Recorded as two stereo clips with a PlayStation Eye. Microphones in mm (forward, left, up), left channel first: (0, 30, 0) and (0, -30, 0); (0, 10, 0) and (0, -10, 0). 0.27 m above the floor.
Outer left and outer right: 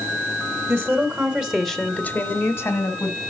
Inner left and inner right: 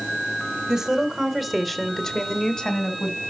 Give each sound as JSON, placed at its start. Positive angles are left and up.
{"t": 0.7, "sound": "a woman speaking", "side_deg": -40, "distance_m": 1.8}